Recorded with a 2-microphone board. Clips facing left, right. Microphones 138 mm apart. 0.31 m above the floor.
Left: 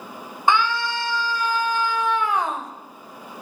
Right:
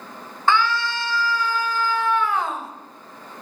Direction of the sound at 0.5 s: 15° left (ahead or behind).